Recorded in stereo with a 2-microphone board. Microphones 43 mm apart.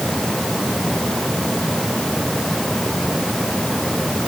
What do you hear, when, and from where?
Only background noise.